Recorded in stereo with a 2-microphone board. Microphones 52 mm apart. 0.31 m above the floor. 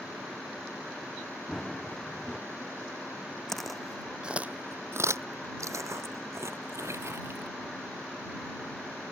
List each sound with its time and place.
1.5 s running footsteps: 10° left (ahead or behind)
3.5 s footsteps: 5° left (ahead or behind); by 7.5 s 55° right (ahead or behind)